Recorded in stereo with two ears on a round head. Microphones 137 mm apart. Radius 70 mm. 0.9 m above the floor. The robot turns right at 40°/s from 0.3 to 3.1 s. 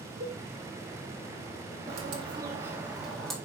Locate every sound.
0.2 s a cowbell: 65° right (ahead or behind), 2 m; by 0.4 s 60° right (ahead or behind), 2 m
1.9 s a bird: 50° right, 1.7 m; by 3.4 s straight ahead, 1.7 m